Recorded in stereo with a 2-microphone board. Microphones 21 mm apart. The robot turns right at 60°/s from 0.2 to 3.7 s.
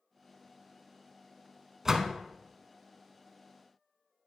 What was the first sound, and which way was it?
A door slam, 25° right (ahead or behind).